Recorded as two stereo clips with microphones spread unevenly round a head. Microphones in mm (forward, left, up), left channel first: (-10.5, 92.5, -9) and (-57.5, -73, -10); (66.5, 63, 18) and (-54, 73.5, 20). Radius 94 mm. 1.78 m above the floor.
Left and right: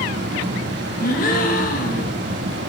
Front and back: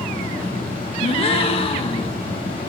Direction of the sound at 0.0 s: 70° right.